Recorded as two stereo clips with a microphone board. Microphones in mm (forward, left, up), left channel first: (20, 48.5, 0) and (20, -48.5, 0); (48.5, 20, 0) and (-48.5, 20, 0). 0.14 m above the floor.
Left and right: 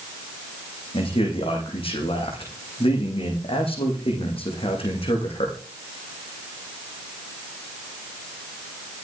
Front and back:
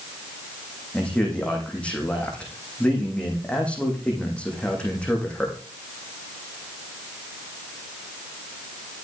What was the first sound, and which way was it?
A man speaking, 80° left.